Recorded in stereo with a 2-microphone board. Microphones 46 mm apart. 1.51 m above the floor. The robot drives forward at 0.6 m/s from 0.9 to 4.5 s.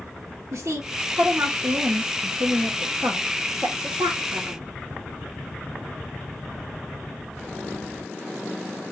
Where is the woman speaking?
80° right, 2.5 m; by 4.7 s 50° right (ahead or behind), 3 m.